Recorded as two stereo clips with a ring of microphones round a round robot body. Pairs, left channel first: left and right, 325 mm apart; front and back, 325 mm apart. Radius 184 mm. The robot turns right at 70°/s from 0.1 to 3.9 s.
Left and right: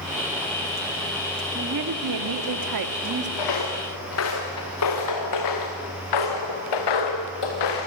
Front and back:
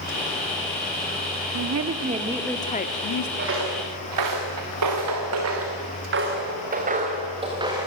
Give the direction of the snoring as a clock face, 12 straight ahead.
No snoring in this recording.